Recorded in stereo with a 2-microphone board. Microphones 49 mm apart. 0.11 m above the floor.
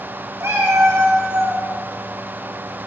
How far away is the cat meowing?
About 2.5 m.